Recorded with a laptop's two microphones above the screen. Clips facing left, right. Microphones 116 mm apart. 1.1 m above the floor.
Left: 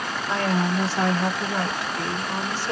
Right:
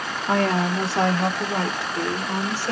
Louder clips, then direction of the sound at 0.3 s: Right 3 dB; 55° right (ahead or behind).